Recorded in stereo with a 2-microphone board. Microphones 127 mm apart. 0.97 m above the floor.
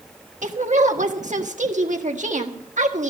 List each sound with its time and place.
0.4 s a woman speaking: 65° right (ahead or behind), 1.5 m